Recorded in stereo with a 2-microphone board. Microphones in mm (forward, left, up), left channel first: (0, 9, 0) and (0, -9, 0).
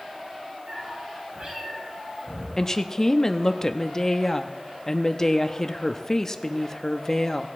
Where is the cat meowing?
75° right (ahead or behind), 6 m.